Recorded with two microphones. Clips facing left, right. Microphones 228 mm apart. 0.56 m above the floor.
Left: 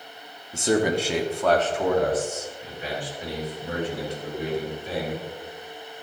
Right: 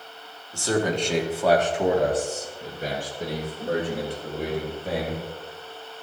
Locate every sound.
0.5 s a man speaking: 20° left (ahead or behind), 1.1 m; by 5.2 s 55° right (ahead or behind), 3 m